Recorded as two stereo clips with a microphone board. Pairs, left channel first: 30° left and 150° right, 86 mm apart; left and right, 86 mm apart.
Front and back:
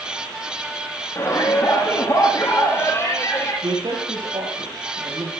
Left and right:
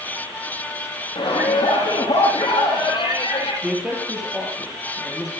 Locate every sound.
1.1 s a shout: 80° left, 6.5 m
3.6 s a man speaking: 175° right, 6.5 m